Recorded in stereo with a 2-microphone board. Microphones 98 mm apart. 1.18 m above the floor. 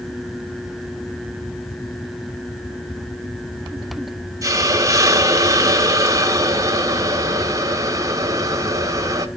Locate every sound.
4.4 s a hiss: 35° right (ahead or behind), 1.2 m